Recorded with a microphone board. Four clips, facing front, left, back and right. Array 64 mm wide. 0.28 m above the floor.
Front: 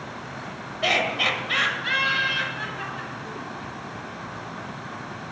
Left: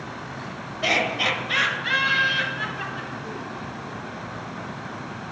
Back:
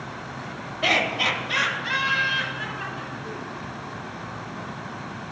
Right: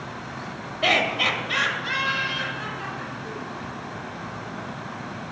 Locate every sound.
0.8 s laughter: 95° right, 1.0 m; by 3.5 s 40° left, 2 m